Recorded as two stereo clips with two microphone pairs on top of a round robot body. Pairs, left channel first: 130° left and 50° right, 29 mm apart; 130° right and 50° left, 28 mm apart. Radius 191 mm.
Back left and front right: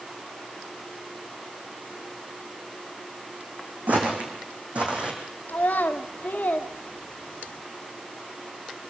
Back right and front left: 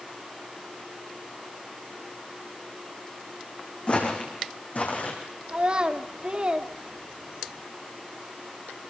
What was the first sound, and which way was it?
Footsteps, 90° right.